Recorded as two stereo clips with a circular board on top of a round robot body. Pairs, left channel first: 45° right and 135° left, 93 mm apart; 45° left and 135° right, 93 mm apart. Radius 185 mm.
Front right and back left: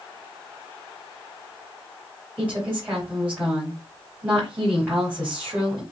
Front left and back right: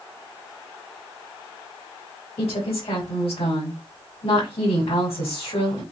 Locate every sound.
2.4 s a woman speaking: 60° left, 3.5 m